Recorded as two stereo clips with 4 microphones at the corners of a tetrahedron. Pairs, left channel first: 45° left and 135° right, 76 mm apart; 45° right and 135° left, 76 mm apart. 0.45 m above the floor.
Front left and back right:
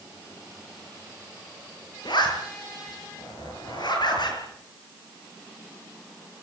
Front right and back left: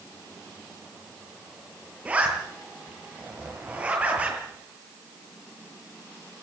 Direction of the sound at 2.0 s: 65° left.